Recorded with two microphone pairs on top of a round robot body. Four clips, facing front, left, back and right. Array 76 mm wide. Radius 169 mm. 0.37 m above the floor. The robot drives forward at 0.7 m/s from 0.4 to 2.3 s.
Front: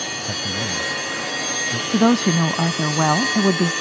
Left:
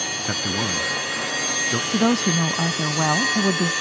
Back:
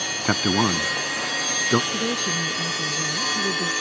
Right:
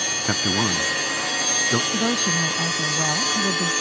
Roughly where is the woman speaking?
Ahead.